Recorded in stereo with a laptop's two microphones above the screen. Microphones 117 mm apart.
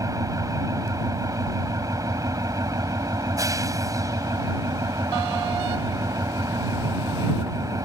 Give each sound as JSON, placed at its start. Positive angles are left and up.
{"t": 0.0, "sound": "an engine running", "side_deg": -30}